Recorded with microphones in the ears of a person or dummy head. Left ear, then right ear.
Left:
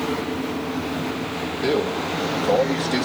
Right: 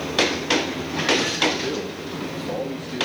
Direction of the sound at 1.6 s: 10° left (ahead or behind).